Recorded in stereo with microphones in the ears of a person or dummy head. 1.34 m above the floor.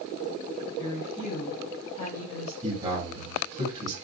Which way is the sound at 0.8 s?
20° left (ahead or behind).